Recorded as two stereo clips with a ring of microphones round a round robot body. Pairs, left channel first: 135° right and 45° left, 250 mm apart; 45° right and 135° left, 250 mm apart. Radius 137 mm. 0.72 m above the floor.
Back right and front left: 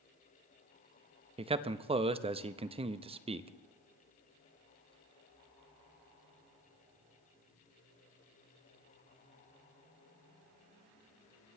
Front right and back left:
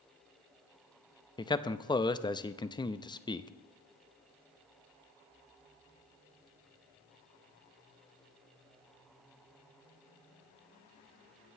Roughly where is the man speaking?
Ahead.